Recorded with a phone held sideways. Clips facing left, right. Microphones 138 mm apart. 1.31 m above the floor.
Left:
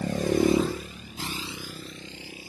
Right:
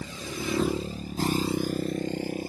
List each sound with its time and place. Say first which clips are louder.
0.0 s a motorcycle: left 12 dB; 60° left (ahead or behind); by 2.5 s 50° right (ahead or behind)